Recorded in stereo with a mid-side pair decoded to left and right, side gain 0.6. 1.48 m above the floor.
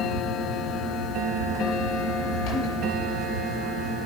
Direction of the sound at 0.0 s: 60° left.